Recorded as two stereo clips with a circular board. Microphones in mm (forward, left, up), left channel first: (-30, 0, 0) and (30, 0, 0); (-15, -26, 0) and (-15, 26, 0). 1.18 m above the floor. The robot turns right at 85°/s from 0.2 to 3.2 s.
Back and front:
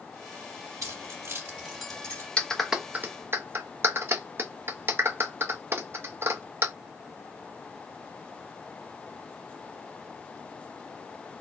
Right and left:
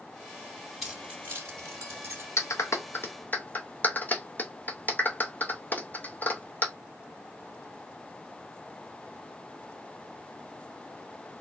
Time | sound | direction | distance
0.8 | keys jangling | 5° left | 2 m
2.4 | a clap | 110° right | 0.7 m